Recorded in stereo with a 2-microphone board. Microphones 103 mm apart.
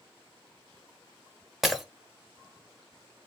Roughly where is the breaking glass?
Centre.